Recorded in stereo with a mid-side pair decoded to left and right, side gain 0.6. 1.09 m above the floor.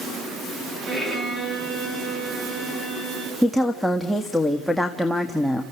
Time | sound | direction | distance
0.9 | a violin | 20° right | 5 m
3.4 | a woman speaking | straight ahead | 1.7 m